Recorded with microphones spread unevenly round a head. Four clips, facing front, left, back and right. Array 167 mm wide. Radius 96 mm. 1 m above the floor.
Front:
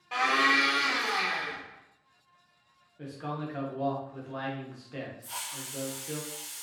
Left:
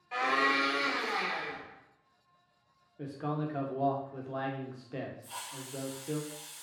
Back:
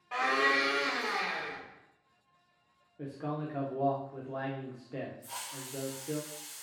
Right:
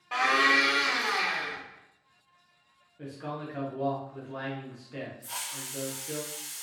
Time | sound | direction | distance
0.1 | a blender | 70° right | 1.7 m
3.0 | a man speaking | 140° left | 0.6 m
5.2 | a hiss | 130° right | 0.7 m